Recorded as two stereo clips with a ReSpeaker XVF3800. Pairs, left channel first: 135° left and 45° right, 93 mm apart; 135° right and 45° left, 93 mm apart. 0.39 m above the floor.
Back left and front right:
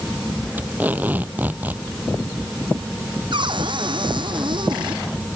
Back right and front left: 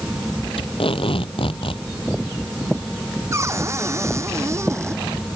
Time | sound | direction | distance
0.6 | tape being pulled | 120° right | ?
3.3 | a cupboard door | 15° right | ?